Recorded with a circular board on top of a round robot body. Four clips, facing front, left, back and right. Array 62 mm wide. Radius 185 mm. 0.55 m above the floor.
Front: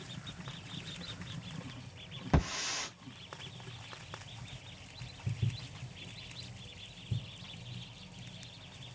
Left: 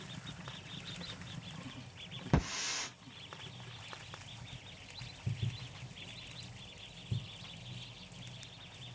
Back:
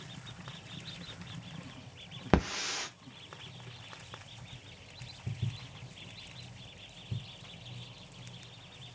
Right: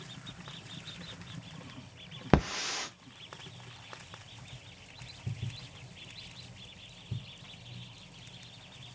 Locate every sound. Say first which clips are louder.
2.3 s a hiss: right 7 dB, back 4 dB; 125° right, 0.6 m